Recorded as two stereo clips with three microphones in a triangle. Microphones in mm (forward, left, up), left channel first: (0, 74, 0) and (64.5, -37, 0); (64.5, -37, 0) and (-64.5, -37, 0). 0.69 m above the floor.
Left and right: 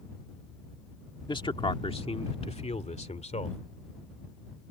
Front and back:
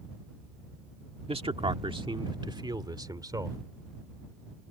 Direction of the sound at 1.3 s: 160° left.